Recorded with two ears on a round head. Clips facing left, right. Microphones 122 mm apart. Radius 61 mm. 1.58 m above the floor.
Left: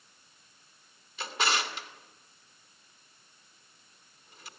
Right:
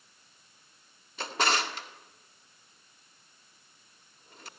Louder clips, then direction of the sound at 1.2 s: Right 2 dB; 40° right (ahead or behind).